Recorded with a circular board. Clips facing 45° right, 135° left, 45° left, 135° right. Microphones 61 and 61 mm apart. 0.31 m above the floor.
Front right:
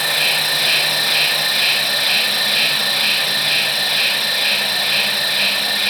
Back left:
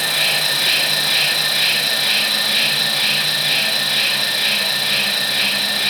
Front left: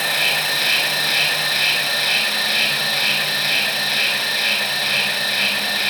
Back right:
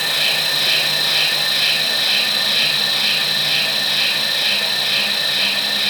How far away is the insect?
About 0.9 m.